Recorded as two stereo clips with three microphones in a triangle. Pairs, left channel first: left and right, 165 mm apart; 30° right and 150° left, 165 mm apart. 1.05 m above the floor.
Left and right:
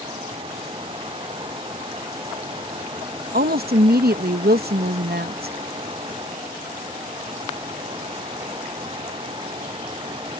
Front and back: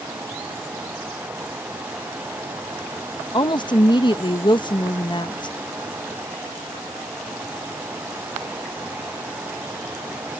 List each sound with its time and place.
3.3 s a woman speaking: 90° right